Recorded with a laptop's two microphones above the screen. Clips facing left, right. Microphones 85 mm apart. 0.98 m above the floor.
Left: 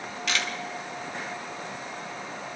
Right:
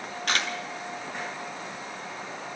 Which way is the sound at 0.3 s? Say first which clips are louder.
Right 2 dB; 45° right (ahead or behind).